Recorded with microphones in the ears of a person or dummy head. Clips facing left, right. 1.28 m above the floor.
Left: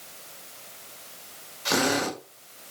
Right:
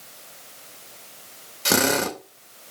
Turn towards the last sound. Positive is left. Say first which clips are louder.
# right 3 dB
turn(degrees=-40)  # may be behind; listen again after turning